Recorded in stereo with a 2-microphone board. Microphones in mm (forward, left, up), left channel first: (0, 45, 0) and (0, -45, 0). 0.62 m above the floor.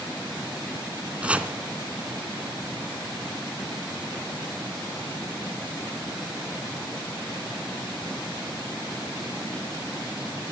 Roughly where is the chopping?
Centre.